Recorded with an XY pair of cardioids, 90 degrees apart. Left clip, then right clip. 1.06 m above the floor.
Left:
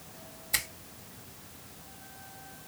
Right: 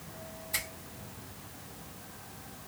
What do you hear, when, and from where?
0.5 s a finger snap: 55° left, 1.3 m